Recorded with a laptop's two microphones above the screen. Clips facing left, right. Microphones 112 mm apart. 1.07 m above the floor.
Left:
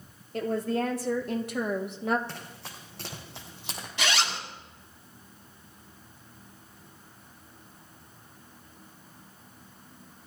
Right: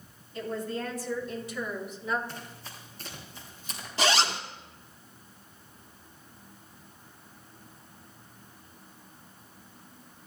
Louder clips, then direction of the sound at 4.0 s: Right 4 dB; 35° right (ahead or behind).